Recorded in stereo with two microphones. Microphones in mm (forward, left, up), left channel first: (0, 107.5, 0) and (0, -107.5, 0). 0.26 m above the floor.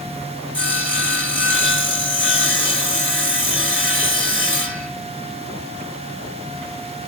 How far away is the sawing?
About 0.8 m.